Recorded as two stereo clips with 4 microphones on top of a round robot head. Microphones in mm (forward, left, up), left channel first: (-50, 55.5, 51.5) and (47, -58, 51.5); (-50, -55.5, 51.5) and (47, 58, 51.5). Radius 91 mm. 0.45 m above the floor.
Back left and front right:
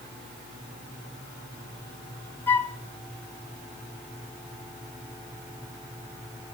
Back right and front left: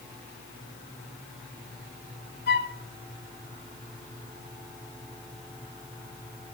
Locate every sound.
2.5 s a flute: 150° right, 0.9 m